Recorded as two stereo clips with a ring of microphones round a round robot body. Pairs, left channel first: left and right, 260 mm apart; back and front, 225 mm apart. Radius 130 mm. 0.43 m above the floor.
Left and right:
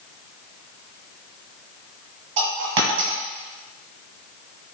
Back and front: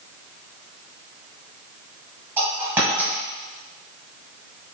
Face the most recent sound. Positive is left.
turn(degrees=-80)